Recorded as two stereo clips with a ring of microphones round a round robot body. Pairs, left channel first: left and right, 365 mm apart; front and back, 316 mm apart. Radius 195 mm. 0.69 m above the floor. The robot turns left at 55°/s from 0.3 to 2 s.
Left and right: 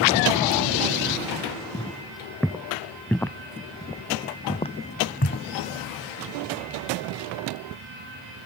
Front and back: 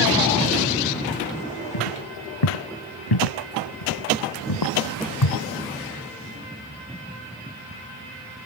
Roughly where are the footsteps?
Ahead.